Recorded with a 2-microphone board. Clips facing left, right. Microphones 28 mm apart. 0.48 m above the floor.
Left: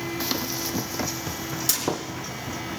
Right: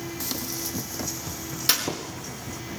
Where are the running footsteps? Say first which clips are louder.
Left 4 dB; 30° left (ahead or behind), 1.1 m; by 2.6 s 20° left (ahead or behind), 2.5 m.